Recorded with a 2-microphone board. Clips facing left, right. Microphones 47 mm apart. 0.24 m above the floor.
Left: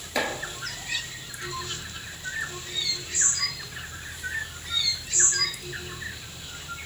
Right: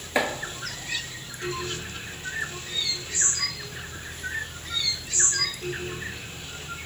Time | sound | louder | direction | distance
0.1 | chopping | right 3 dB | 25° right (ahead or behind) | 1.0 m